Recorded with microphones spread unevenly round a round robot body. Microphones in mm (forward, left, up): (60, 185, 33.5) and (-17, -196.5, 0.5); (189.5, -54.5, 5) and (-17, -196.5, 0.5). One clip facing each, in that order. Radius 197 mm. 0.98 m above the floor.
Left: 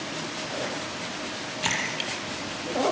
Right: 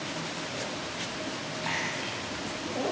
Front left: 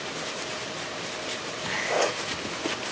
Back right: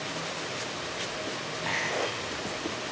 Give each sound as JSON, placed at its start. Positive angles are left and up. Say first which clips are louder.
{"t": 1.6, "sound": "a splash", "louder": "left 2 dB, front left 6 dB", "azimuth_deg": 110, "distance_m": 5.5}